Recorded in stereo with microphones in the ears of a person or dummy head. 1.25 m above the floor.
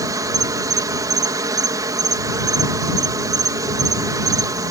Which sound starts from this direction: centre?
An insect, at 0.0 s.